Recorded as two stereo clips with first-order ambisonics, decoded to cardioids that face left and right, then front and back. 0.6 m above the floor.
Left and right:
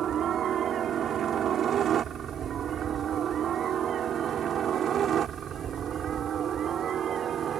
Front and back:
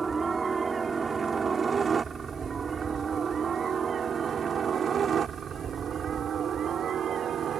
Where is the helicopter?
115° right; by 7.6 s 135° right.